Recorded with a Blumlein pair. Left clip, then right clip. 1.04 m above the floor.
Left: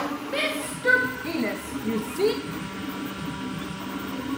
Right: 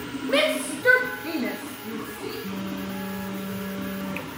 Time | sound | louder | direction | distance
0.3 | a shout | right 7 dB | 25° right | 1.6 m
2.4 | a phone buzzing | even | 70° right | 9 m